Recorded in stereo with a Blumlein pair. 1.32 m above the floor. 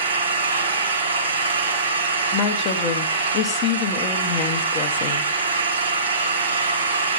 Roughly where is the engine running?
Right.